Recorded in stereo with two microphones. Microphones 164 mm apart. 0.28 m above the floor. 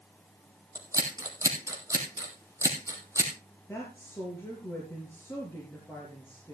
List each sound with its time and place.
0.8 s scissors: 20° right (ahead or behind), 3 m
3.7 s a woman speaking: 15° left (ahead or behind), 4 m